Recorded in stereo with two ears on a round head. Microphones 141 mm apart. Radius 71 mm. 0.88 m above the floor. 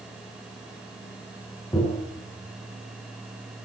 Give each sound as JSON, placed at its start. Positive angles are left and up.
{"t": 1.7, "sound": "tapping", "side_deg": 15, "distance_m": 8.5}